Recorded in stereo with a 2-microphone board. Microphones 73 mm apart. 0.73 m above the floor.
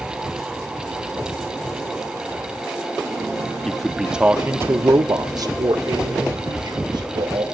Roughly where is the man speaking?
Centre.